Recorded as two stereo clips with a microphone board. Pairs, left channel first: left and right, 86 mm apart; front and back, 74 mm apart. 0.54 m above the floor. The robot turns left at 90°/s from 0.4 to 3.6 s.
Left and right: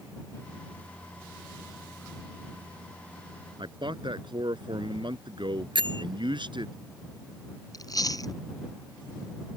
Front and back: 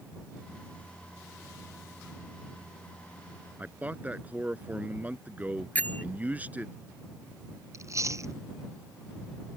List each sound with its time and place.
3.6 s a man speaking: 110° right
5.8 s a bell: 70° right
7.7 s chewing: 135° left